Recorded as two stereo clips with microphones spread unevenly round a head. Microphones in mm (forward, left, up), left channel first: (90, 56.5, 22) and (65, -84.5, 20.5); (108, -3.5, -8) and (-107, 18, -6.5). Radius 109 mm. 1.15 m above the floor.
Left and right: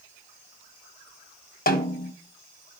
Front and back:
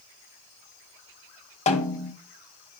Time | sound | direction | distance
1.7 | a snare drum | 55° left | 1.6 m